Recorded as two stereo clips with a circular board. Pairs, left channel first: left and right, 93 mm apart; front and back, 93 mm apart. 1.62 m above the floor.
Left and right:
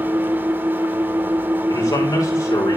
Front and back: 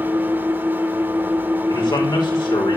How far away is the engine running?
About 1.4 m.